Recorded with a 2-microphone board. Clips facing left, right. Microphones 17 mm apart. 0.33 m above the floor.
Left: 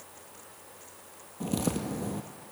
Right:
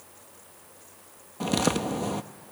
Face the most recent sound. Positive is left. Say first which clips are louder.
# right 6 dB
turn(degrees=-50)  # may be behind; listen again after turning